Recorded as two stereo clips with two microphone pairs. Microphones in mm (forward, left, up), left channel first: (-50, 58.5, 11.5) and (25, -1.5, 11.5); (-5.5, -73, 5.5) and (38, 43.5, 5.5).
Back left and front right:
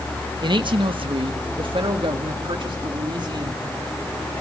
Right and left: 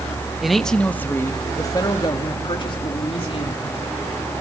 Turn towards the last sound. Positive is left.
turn(degrees=-75)